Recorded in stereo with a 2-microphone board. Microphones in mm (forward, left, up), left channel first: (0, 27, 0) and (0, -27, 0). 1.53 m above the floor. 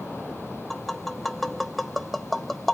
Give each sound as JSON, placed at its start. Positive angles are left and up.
{"t": 0.7, "sound": "tapping", "side_deg": 0, "distance_m": 0.7}